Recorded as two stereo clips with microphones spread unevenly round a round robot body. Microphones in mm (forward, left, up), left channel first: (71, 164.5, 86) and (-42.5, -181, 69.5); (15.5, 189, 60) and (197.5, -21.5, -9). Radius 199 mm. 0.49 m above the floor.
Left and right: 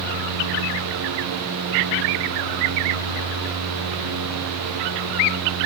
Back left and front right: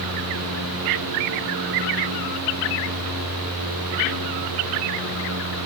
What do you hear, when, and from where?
Only background noise.